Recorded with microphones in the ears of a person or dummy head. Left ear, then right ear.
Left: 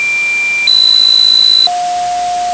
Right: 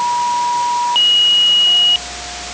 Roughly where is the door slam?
No door slam in this recording.